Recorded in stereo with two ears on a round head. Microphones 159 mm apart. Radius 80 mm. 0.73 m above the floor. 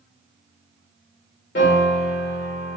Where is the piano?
60° left (ahead or behind), 1.7 m.